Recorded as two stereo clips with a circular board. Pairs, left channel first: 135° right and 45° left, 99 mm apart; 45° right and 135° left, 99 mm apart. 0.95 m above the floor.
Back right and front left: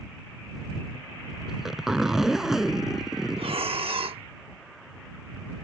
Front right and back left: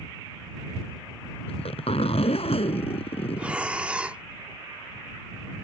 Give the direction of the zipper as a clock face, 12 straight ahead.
1 o'clock.